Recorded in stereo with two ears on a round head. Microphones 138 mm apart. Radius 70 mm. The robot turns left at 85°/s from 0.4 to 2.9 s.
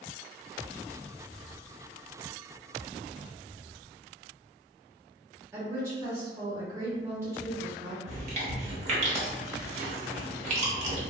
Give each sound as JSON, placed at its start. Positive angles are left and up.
{"t": 5.5, "sound": "a woman speaking", "side_deg": -15, "distance_m": 1.2}
{"t": 8.1, "sound": "chewing", "side_deg": -45, "distance_m": 0.8}